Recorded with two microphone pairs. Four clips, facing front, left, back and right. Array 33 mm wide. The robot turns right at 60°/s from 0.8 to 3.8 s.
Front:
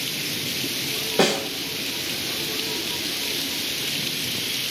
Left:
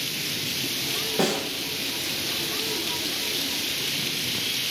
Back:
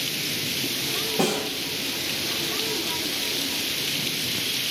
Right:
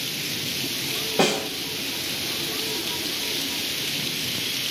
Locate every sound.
1.2 s a snare drum: 15° right, 2.5 m; by 1.5 s straight ahead, 2.5 m